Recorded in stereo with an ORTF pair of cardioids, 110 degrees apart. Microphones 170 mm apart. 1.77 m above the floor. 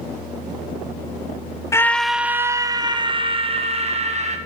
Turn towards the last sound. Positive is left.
turn(degrees=-40)